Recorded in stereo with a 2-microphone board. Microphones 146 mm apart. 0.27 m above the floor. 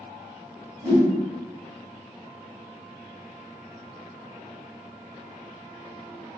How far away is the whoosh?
About 1.7 m.